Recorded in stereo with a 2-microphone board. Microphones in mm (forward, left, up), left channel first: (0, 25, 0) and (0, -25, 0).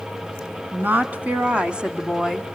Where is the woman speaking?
40° right (ahead or behind), 1.3 m; by 2.5 s 5° right (ahead or behind), 1.2 m.